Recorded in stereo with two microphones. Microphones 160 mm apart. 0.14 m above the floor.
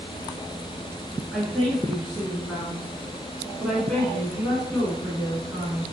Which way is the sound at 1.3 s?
5° left (ahead or behind).